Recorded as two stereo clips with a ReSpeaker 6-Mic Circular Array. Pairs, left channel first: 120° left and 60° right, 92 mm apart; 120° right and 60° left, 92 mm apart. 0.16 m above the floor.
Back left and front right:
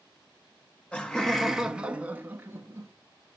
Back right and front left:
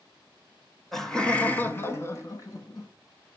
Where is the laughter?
160° left, 1.7 m; by 2.9 s 110° right, 2.5 m.